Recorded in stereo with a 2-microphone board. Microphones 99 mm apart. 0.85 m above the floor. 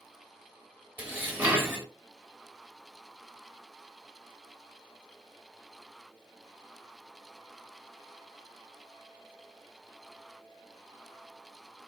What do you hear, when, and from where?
1.0 s dishes clattering: 15° right (ahead or behind), 0.8 m